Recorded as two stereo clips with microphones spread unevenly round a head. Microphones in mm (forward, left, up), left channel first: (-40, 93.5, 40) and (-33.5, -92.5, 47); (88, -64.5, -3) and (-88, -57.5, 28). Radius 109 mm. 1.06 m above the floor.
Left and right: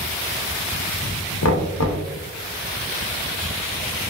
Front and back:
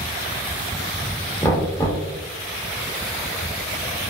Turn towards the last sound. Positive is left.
turn(degrees=80)